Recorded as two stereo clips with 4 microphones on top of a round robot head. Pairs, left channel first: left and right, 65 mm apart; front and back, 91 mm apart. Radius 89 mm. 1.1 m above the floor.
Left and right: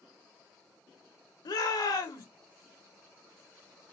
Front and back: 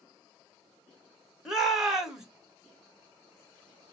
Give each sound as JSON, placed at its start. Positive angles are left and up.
{"t": 1.4, "sound": "a shout", "azimuth_deg": 95, "distance_m": 2.0}